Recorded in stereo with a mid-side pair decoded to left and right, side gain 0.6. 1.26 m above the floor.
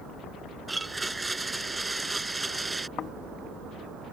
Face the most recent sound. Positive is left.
turn(degrees=50)